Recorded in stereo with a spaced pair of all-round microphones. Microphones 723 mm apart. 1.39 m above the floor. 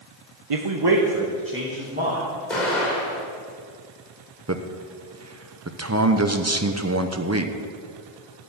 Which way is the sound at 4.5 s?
20° right (ahead or behind).